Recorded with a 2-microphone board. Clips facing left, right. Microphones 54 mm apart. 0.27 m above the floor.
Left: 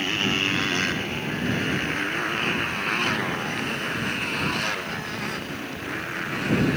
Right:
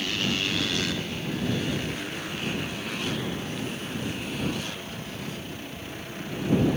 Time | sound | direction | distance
0.0 | a motorcycle | 35° left (ahead or behind) | ?